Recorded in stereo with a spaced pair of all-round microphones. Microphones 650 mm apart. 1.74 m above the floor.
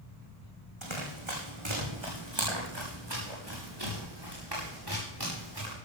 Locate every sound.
0.8 s running footsteps: 45° right (ahead or behind), 5.5 m; by 5.7 s 35° right (ahead or behind), 10.5 m